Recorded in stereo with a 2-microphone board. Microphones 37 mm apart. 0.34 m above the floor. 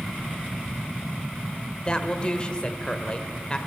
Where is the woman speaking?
25° left (ahead or behind), 0.9 m.